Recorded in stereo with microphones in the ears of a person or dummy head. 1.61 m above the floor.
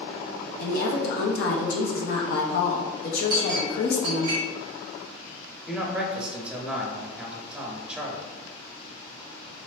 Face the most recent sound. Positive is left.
turn(degrees=-5)  # may be behind; listen again after turning